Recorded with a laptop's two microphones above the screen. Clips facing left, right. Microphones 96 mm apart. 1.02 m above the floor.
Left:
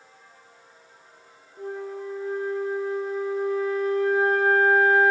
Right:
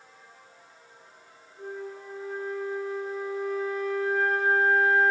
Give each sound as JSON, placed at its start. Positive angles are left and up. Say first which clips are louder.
{"t": 1.6, "sound": "a flute", "louder": "left 5 dB", "side_deg": 75, "distance_m": 0.5}